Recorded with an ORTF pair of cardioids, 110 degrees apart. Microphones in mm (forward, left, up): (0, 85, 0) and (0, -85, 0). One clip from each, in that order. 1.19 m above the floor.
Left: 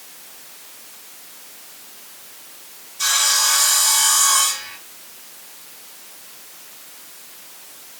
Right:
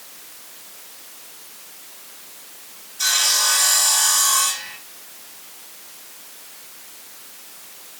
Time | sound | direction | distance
3.0 | sawing | straight ahead | 3 m